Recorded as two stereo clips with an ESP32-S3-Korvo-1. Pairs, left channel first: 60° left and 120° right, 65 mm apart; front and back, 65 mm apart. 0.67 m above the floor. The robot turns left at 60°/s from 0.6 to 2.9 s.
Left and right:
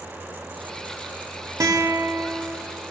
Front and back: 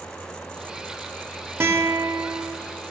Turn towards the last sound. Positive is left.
turn(degrees=150)